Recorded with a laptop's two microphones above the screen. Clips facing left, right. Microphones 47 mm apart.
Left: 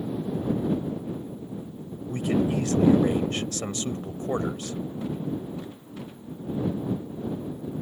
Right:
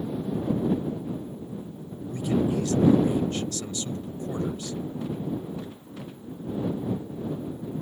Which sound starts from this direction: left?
A man speaking, at 2.1 s.